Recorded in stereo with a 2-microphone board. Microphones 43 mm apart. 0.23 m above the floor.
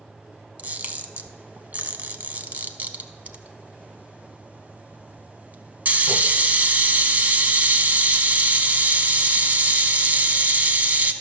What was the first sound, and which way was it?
A camera shutter, 35° right (ahead or behind).